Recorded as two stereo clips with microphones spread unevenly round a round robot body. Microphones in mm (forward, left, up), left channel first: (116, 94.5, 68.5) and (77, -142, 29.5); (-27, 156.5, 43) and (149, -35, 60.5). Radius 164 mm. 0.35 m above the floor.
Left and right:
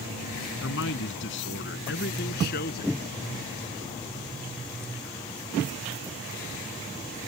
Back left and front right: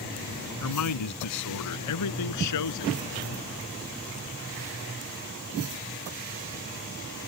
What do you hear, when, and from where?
0.6 s a man speaking: 130° left; by 3.0 s 140° left